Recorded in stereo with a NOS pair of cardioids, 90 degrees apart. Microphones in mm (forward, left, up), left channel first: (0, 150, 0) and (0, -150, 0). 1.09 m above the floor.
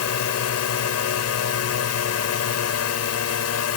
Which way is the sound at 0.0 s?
60° left.